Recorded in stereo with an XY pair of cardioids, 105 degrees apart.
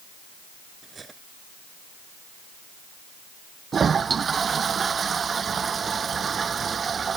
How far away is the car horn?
No car horn in this recording.